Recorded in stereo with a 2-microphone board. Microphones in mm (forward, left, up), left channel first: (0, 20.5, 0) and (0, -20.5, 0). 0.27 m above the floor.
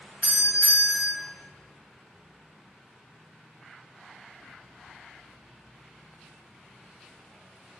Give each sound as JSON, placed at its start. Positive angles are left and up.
{"t": 0.2, "sound": "a doorbell", "side_deg": -40, "distance_m": 2.0}